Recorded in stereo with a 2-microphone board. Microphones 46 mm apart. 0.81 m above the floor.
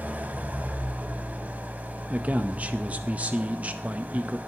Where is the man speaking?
30° right (ahead or behind), 0.6 m.